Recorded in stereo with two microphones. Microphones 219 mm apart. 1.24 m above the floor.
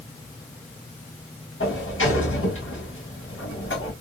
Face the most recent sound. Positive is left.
turn(degrees=60)  # may be behind; listen again after turning